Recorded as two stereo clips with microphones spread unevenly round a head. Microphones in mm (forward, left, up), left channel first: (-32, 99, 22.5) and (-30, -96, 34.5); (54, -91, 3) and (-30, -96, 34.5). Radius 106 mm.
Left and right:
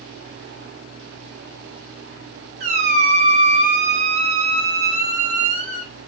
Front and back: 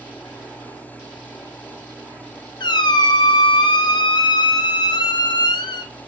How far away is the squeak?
About 0.5 m.